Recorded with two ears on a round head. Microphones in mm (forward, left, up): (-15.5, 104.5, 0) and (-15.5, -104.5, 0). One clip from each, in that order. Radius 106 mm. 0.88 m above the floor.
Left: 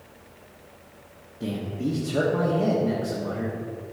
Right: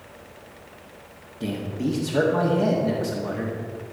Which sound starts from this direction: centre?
A man speaking, at 1.4 s.